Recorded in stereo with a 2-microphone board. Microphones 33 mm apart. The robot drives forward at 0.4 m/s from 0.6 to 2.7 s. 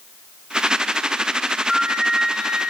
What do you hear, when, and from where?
1.7 s a flute: 25° right (ahead or behind), 0.9 m; by 2.7 s 15° right (ahead or behind), 1.3 m